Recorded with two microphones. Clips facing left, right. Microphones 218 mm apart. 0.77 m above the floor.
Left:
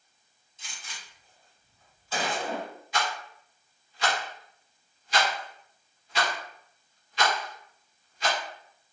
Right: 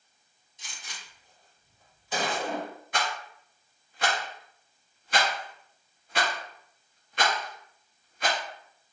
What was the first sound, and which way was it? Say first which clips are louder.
A gunshot: even; 15° right (ahead or behind).